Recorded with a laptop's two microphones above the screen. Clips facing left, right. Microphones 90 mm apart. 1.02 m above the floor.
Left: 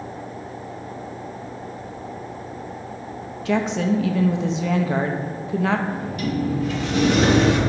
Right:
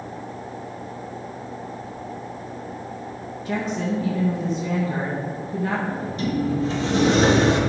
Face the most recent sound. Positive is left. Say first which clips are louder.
# even
turn(degrees=-30)  # may be behind; listen again after turning